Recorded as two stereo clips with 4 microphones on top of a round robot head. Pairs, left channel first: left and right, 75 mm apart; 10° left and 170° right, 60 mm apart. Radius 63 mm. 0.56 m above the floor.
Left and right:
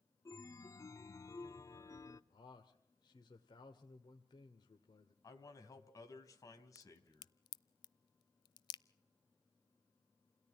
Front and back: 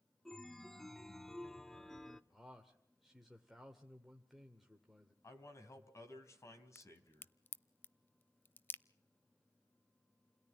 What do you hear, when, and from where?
0.2 s a chime: 90° left, 1.1 m
2.3 s a man speaking: 100° left, 1.9 m
5.2 s a man speaking: 50° left, 3.5 m
6.8 s a crack: 70° left, 0.5 m